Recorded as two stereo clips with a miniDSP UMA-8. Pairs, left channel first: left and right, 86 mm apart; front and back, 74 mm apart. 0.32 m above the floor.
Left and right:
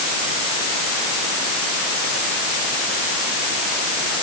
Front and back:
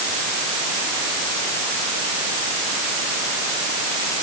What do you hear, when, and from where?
Only background noise.